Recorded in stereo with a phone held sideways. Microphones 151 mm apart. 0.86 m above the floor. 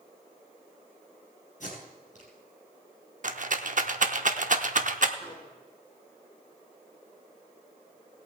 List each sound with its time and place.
1.6 s tape being pulled: 55° left (ahead or behind), 5 m
3.2 s a rattle: 60° right (ahead or behind), 0.7 m
5.2 s a microwave: 45° left (ahead or behind), 6.5 m